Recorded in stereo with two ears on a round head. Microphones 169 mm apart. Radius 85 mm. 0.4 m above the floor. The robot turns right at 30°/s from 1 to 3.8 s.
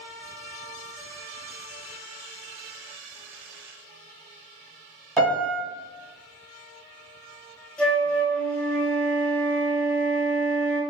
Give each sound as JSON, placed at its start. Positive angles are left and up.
{"t": 5.2, "sound": "a piano", "side_deg": 0, "distance_m": 1.2}
{"t": 7.8, "sound": "a flute", "side_deg": 5, "distance_m": 0.7}